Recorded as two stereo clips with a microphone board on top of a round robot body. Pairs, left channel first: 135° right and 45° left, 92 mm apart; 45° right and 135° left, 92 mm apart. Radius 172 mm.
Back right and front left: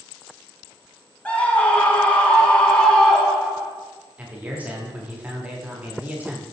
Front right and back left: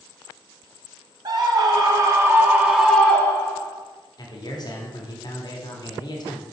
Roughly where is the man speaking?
Ahead right.